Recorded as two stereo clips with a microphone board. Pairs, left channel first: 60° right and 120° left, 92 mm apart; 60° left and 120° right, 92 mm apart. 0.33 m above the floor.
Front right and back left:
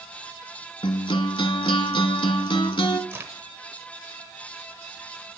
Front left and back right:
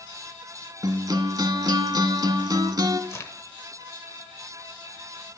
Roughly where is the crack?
Left.